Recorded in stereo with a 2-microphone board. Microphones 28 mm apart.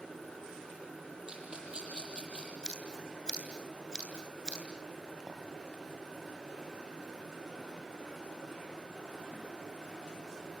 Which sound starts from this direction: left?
Scissors, at 2.6 s.